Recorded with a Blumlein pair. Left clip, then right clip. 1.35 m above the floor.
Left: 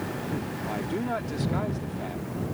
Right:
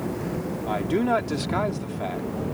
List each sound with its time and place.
0.7 s a man speaking: 65° right